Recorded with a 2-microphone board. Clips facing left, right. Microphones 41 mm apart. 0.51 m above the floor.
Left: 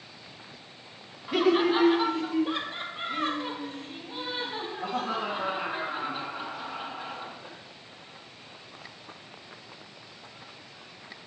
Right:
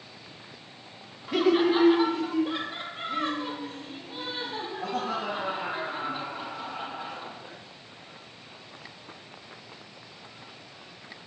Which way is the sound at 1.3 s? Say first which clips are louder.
Right 1 dB; 5° left (ahead or behind).